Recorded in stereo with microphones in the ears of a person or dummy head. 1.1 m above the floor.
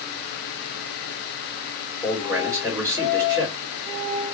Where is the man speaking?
5° right (ahead or behind), 2.5 m.